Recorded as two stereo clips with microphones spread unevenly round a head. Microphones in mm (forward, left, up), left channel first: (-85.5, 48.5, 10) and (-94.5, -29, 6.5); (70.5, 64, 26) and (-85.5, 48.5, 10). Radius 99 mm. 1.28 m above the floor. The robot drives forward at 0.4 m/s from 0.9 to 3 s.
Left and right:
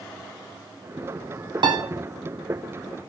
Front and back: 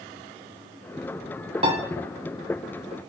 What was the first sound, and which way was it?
A piano, 115° right.